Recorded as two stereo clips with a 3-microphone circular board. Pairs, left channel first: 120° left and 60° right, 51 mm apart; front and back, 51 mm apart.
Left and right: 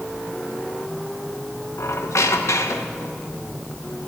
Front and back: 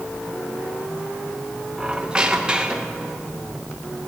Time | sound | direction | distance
1.8 | a squeak | 110° left | 0.8 m